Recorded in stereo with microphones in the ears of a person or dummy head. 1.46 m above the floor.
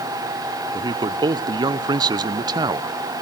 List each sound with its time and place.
0.7 s a man speaking: 25° right (ahead or behind), 0.9 m